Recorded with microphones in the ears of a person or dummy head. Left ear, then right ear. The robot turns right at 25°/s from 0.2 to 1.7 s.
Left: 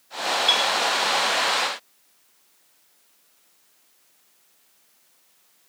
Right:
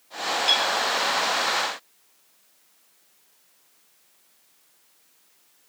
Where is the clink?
55° right (ahead or behind), 2 m; by 0.7 s 60° right (ahead or behind), 2 m.